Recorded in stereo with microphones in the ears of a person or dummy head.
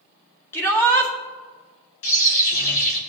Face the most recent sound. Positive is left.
turn(degrees=45)  # may be behind; listen again after turning